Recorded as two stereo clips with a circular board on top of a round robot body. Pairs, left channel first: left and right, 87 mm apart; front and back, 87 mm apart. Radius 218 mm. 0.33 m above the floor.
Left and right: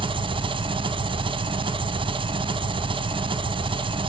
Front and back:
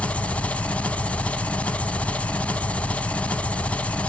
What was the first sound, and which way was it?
An engine running, 75° right.